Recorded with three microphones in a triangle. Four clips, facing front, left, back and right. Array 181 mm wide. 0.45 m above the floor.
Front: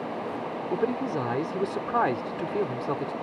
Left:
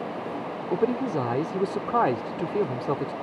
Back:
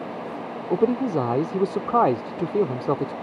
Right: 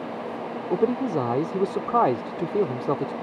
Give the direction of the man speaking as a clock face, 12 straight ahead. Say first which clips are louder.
Right 2 dB, back 7 dB; 5 o'clock.